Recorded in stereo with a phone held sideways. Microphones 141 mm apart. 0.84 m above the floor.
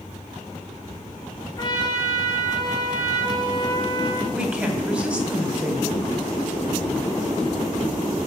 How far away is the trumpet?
About 1.8 m.